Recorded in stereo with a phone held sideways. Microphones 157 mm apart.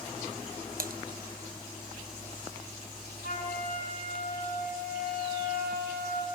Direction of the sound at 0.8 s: 65° right (ahead or behind).